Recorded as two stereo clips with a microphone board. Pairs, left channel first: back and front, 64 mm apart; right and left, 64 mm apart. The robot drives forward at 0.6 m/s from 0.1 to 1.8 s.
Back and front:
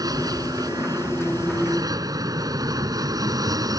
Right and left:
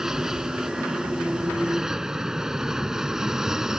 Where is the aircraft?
10° left.